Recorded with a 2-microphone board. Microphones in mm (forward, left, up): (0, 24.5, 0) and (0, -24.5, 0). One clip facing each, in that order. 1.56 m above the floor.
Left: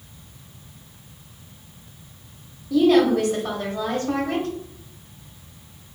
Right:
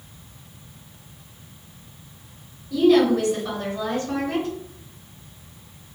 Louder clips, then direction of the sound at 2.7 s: Even; 65° left (ahead or behind).